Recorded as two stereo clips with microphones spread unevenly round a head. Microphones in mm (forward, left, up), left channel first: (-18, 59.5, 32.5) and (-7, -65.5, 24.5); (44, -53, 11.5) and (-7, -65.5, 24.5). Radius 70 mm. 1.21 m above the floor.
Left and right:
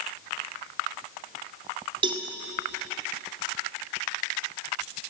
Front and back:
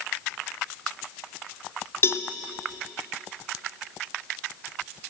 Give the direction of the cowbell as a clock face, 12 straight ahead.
1 o'clock.